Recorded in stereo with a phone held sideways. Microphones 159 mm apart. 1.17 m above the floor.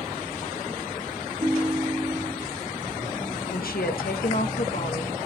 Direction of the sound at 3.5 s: 70° left (ahead or behind).